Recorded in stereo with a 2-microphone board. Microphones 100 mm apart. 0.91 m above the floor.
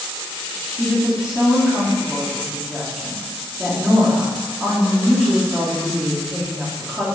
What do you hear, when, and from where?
0.8 s a woman speaking: 5° right (ahead or behind), 2.5 m